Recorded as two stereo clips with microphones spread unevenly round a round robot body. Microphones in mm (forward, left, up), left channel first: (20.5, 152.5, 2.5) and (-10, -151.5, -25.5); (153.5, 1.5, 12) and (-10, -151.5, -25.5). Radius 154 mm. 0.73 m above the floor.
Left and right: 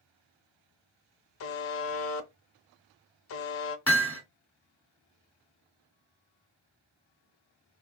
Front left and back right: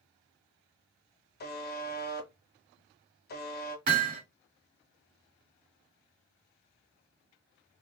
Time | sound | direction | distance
1.4 | a buzzer | 60° left | 0.6 m
3.9 | hammering | 170° left | 1.4 m